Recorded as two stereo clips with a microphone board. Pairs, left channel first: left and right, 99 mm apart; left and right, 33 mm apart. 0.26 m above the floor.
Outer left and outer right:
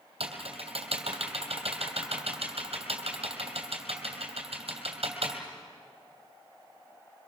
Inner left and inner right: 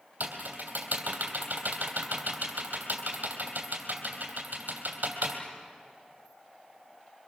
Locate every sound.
0.2 s typing on a keyboard: 75° right (ahead or behind), 3 m